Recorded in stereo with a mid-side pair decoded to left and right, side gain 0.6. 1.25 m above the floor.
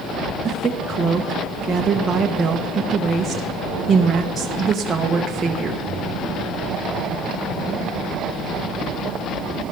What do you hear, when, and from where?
0.4 s a woman speaking: 30° right, 1.0 m